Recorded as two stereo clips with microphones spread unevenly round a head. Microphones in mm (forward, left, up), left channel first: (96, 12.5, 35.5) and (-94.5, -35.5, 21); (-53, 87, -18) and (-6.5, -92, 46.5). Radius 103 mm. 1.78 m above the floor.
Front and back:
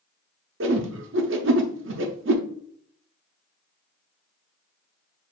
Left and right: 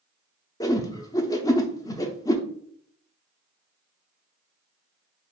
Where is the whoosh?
170° right, 0.6 m.